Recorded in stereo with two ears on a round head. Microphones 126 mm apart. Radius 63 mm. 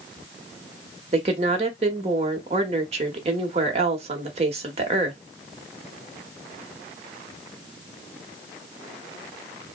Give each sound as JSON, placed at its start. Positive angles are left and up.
{"t": 1.1, "sound": "a woman speaking", "side_deg": -45, "distance_m": 1.1}